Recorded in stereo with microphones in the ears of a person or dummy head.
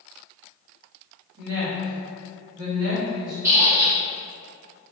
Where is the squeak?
15° right (ahead or behind), 0.8 m.